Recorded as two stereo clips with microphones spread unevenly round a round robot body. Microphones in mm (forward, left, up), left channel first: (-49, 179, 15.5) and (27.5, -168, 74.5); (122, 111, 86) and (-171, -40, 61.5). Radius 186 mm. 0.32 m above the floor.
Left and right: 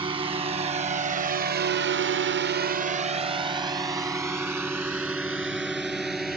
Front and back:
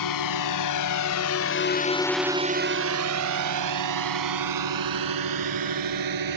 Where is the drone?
Straight ahead; by 6.4 s 165° right.